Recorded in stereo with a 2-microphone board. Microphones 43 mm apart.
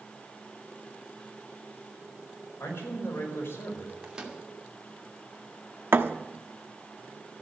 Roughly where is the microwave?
Right.